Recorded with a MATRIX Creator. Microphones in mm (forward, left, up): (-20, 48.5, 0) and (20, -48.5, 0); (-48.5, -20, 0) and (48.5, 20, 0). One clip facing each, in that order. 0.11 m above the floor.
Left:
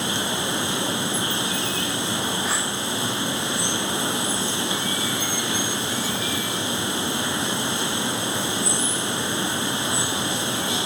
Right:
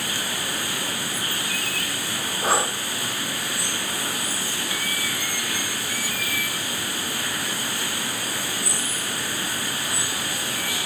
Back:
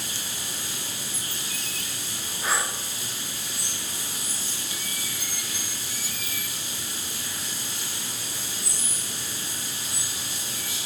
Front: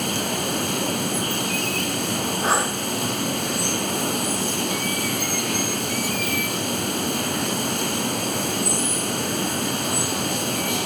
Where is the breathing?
30° right, 1.5 m.